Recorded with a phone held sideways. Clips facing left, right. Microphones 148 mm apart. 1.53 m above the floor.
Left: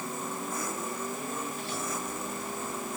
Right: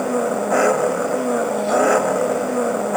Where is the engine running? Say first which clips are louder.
Right 17 dB; 75° right (ahead or behind).